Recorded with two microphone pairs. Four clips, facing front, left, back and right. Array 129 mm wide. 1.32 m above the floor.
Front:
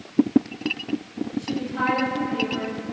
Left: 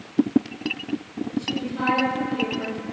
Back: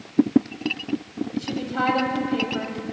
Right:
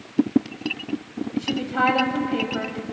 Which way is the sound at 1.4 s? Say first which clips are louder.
Right 5 dB, even; 115° right.